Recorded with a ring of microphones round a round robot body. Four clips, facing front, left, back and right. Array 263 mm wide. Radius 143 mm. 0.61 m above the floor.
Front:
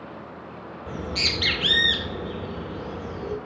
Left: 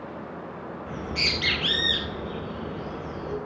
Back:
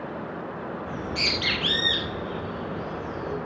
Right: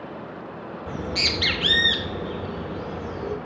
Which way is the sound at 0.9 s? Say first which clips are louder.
Right 3 dB, front 3 dB; 60° right.